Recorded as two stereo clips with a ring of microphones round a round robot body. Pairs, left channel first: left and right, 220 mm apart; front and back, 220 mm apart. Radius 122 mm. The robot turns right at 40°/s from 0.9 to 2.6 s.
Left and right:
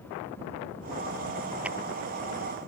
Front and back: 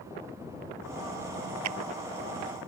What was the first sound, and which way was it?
A clap, 175° right.